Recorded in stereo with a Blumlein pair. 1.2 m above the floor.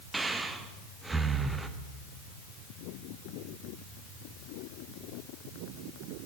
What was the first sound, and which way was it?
Breathing, 10° right.